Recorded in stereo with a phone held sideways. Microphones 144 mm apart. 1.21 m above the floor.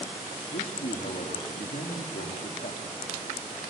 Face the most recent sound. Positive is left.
turn(degrees=80)